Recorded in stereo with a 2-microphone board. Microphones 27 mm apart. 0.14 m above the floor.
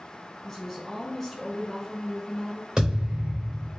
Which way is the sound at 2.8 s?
35° right (ahead or behind).